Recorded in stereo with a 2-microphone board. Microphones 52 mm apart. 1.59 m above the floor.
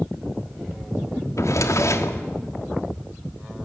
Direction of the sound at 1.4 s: 70° left (ahead or behind).